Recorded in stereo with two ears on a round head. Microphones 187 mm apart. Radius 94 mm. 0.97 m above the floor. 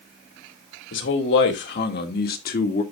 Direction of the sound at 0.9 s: 65° left (ahead or behind).